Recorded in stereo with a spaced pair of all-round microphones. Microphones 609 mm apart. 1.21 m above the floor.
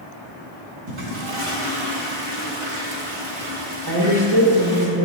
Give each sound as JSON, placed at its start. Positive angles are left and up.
{"t": 0.9, "sound": "a toilet flushing", "side_deg": -50, "distance_m": 1.2}
{"t": 3.9, "sound": "a woman speaking", "side_deg": -35, "distance_m": 1.7}